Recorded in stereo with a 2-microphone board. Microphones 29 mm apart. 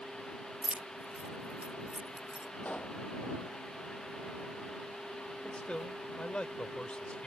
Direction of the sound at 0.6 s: 40° right (ahead or behind).